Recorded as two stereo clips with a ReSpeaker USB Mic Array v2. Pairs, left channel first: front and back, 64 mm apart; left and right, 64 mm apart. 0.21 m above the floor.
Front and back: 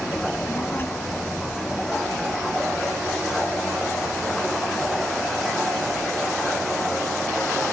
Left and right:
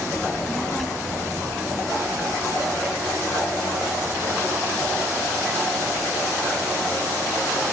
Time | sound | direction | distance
0.2 | a child speaking | 30° left | 0.9 m